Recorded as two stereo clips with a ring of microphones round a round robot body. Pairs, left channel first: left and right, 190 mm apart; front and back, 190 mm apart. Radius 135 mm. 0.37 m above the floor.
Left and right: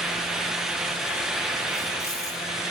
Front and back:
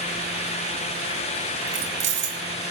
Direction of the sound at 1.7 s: 170° left.